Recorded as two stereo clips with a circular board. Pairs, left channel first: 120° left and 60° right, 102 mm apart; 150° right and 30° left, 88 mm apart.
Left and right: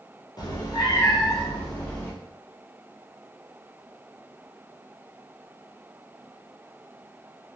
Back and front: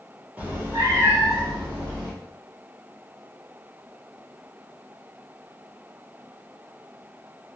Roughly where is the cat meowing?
Left.